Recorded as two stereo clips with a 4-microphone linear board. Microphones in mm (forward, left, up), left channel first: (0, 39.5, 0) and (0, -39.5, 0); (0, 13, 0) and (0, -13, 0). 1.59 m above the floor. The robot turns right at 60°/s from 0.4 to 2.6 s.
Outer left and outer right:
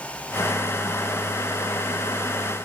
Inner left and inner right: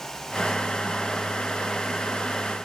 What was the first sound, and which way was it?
Only background noise.